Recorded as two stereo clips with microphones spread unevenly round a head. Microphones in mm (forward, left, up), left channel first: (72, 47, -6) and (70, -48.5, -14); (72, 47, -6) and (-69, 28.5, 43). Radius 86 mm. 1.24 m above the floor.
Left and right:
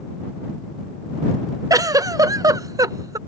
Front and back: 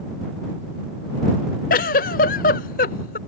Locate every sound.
1.7 s a giggle: 35° right